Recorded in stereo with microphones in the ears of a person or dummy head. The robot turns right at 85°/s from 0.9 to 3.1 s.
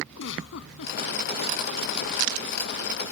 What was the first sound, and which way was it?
A giggle, 75° left (ahead or behind).